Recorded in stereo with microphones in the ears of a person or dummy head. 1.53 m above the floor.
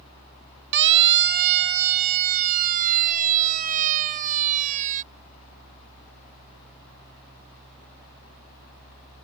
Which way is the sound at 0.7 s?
65° right (ahead or behind).